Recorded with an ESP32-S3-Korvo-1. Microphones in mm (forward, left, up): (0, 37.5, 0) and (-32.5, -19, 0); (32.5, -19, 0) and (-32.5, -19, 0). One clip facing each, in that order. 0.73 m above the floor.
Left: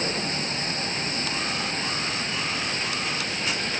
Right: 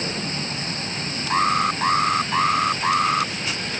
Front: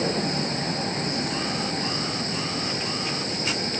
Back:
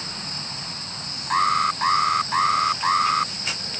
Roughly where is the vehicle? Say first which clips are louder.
Even, front 11 dB; ahead.